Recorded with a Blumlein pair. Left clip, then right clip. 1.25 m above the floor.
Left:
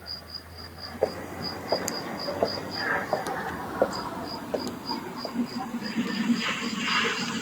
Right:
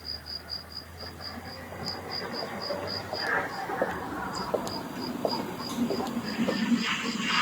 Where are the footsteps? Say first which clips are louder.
Left 14 dB; 40° left; by 6.6 s 65° right.